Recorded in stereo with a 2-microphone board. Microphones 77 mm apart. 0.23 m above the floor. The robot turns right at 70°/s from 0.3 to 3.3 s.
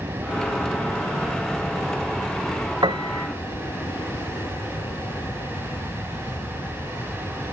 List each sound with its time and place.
0.0 s an aircraft: 55° right (ahead or behind); by 7.5 s 65° left (ahead or behind)
2.8 s a piano: 100° right; by 3.3 s 65° right